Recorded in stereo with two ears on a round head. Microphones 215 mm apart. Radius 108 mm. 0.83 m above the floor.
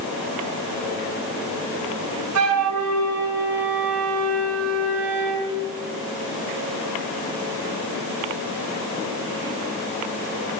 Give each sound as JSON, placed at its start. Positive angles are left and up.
{"t": 2.4, "sound": "a flute", "side_deg": -70, "distance_m": 6.5}